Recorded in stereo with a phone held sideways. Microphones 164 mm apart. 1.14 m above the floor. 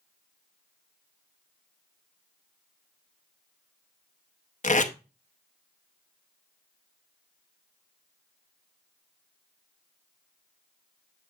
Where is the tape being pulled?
50° left (ahead or behind), 0.7 m.